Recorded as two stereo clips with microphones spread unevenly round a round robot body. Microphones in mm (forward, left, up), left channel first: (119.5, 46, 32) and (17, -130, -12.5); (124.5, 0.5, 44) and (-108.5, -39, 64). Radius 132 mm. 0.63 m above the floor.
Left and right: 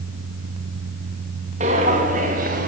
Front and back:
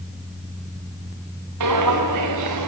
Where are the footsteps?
170° left, 4.5 m; by 2.7 s 175° left, 3.5 m.